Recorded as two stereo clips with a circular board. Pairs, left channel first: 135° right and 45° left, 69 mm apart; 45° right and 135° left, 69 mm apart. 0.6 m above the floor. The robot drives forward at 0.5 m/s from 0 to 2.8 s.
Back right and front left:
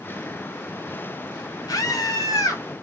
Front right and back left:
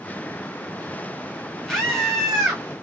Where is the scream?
130° right, 1.7 m; by 2.6 s 140° right, 2 m.